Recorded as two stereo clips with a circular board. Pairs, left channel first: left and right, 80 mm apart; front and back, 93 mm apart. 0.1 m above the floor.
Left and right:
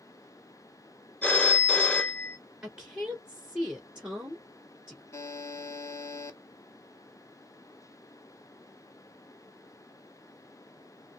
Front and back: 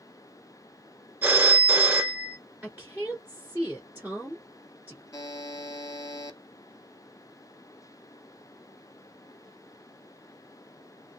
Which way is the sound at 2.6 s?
145° right.